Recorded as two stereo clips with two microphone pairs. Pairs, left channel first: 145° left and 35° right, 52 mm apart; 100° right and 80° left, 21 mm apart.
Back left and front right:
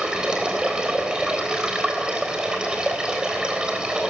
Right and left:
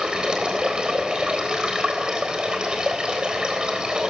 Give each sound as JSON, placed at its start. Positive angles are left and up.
{"t": 0.0, "sound": "running water", "azimuth_deg": 35, "distance_m": 3.5}